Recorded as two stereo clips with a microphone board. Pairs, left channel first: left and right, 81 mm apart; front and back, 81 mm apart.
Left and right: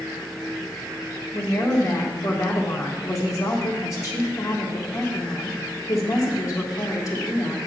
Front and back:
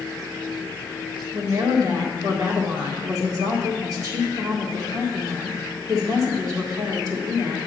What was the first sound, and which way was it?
A woman speaking, 135° left.